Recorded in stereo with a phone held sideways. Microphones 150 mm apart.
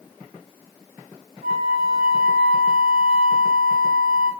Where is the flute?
70° right (ahead or behind), 5.5 m.